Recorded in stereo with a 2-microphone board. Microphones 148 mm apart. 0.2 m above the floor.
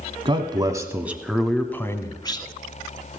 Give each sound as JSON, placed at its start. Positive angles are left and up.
{"t": 0.2, "sound": "a man speaking", "side_deg": -35, "distance_m": 1.2}